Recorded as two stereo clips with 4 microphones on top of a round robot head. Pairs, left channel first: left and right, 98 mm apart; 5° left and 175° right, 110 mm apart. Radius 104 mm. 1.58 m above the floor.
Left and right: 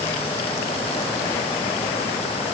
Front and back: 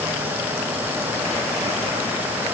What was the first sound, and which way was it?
Only background noise.